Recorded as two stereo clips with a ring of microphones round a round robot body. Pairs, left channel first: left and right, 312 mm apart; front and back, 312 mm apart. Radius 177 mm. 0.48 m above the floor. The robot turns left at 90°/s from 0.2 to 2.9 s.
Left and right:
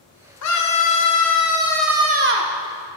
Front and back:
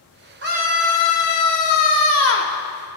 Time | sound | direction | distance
0.4 | a scream | 130° left | 2.5 m